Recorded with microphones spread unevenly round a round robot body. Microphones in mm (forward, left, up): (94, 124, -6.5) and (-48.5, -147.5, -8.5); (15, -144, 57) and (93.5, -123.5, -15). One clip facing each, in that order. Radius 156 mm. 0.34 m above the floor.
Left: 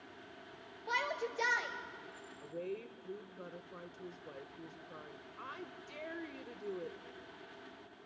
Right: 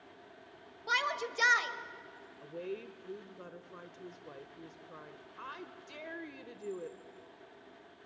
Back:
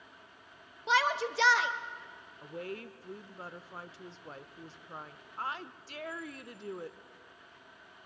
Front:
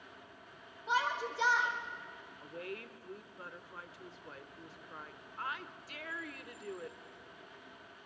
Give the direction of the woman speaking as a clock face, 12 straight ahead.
1 o'clock.